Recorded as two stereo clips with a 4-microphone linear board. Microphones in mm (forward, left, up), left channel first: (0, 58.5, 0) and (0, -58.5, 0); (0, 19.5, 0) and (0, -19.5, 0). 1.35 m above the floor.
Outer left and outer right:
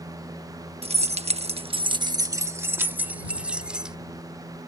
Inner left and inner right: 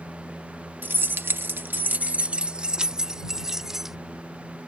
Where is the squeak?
No squeak in this recording.